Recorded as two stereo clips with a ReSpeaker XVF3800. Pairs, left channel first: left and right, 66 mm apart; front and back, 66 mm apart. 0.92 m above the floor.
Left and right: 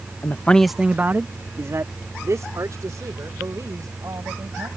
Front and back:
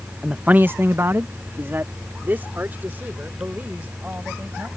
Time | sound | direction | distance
0.2 | a man speaking | 105° left | ?